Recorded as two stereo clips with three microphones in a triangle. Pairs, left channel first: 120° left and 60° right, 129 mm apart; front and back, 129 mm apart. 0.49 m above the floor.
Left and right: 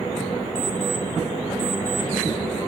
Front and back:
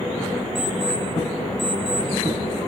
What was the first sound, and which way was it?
An alarm clock, 140° left.